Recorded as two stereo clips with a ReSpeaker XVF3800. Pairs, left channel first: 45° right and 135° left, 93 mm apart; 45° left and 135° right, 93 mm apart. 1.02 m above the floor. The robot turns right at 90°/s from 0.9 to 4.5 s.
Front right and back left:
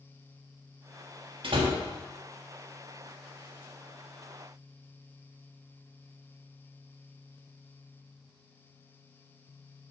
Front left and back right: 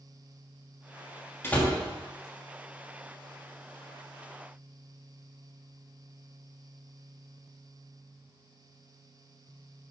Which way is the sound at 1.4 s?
110° left.